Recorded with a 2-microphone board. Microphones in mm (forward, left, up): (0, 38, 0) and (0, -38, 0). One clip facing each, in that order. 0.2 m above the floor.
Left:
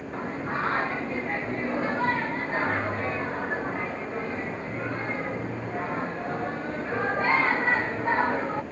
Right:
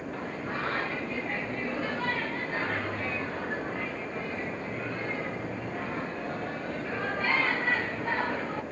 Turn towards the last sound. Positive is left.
turn(degrees=30)  # may be behind; listen again after turning